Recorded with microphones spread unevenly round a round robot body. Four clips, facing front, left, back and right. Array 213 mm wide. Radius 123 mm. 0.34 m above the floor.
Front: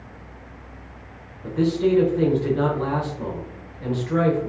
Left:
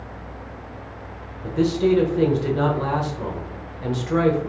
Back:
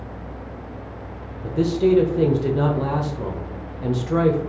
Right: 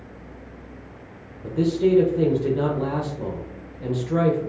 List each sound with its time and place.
1.4 s a man speaking: 170° right, 0.8 m